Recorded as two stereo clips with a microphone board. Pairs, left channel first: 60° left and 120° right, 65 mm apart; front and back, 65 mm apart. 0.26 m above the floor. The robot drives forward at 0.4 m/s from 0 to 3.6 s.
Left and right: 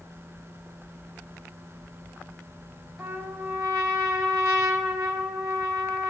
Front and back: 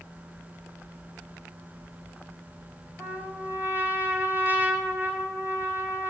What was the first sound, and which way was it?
A trumpet, 135° right.